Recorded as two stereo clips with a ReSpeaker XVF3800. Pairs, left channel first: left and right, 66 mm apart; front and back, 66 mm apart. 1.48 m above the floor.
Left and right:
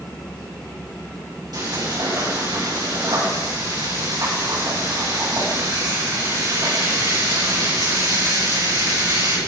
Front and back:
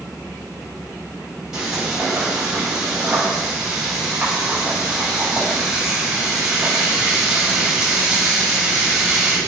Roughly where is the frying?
Right.